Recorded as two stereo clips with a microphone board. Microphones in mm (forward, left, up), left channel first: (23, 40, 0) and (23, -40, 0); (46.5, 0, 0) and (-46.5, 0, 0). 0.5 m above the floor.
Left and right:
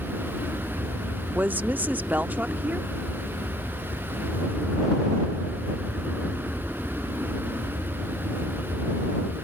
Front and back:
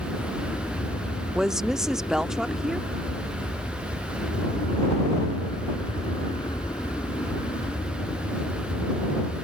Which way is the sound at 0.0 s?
10° right.